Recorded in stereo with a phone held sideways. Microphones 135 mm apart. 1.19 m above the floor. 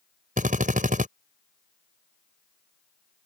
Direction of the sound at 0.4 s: 80° right.